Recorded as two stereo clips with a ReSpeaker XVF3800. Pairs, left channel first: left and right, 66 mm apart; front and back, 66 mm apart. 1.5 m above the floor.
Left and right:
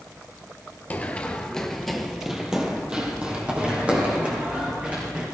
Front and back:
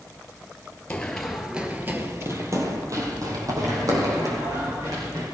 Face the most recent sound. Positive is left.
turn(degrees=-155)